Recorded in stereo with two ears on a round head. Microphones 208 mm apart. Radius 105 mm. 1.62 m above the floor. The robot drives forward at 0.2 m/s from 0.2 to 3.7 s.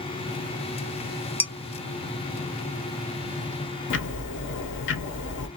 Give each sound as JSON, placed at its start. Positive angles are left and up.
{"t": 1.4, "sound": "dishes clattering", "side_deg": 10, "distance_m": 0.6}
{"t": 3.9, "sound": "ticking", "side_deg": 55, "distance_m": 0.9}